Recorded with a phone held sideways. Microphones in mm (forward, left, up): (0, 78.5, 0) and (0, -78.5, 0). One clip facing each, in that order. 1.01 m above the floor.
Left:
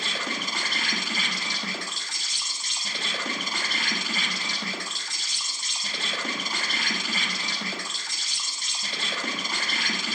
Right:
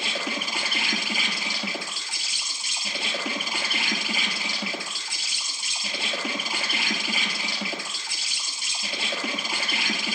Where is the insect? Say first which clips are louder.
Right 2 dB; 10° right (ahead or behind), 1.5 m.